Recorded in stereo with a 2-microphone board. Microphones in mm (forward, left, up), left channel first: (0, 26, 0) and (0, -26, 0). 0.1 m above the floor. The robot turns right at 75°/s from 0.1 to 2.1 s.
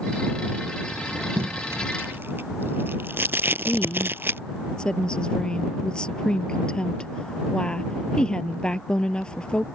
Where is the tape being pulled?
50° right (ahead or behind).